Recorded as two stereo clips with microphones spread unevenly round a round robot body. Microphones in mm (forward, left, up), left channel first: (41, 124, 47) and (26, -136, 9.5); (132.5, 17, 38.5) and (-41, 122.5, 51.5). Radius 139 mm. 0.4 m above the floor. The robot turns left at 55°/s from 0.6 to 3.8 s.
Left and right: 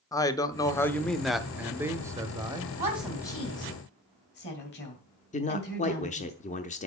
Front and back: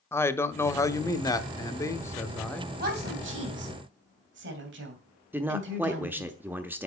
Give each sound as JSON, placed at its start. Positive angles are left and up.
{"t": 0.1, "sound": "a man speaking", "azimuth_deg": 10, "distance_m": 0.9}
{"t": 2.8, "sound": "a woman speaking", "azimuth_deg": -165, "distance_m": 3.0}
{"t": 5.3, "sound": "a man speaking", "azimuth_deg": 75, "distance_m": 1.0}